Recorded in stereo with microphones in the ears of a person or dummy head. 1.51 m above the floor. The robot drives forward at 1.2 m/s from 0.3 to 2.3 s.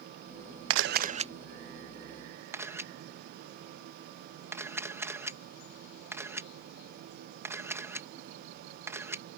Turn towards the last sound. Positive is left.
turn(degrees=-15)  # may be behind; listen again after turning